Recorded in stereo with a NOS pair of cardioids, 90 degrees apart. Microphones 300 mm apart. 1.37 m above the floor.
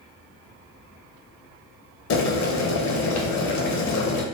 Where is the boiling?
70° left, 0.7 m.